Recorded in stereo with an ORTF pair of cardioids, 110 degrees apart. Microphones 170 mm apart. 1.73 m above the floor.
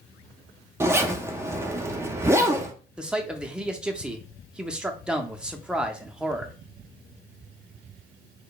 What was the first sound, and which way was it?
A zipper, 15° right.